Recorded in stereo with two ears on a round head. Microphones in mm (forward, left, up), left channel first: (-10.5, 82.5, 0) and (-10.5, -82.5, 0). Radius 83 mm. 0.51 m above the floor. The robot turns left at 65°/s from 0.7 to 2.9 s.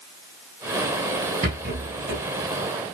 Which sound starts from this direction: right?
A rattle, at 1.4 s.